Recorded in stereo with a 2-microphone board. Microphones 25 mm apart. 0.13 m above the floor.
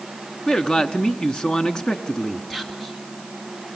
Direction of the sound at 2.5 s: 10° left (ahead or behind).